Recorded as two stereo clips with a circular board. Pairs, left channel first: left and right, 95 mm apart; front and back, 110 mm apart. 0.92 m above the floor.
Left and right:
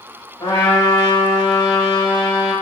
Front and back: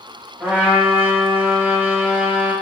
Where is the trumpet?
110° left, 1.2 m.